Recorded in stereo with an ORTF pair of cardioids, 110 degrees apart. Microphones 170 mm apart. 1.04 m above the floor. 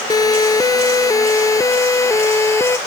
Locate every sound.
0.1 s a siren: 20° left; by 2.8 s 15° left